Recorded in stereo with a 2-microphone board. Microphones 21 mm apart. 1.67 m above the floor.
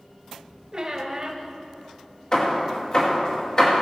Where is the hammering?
30° left (ahead or behind), 2.5 m.